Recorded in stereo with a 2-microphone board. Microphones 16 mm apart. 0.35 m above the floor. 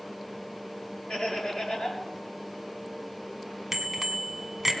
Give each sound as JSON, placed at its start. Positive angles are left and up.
{"t": 1.1, "sound": "laughter", "side_deg": 70, "distance_m": 6.0}
{"t": 3.7, "sound": "a bicycle bell", "side_deg": -15, "distance_m": 2.0}